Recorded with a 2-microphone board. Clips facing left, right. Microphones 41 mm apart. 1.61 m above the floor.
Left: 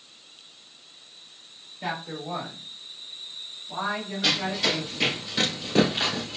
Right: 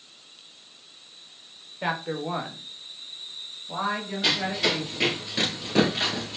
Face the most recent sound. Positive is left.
turn(degrees=0)  # may be behind; listen again after turning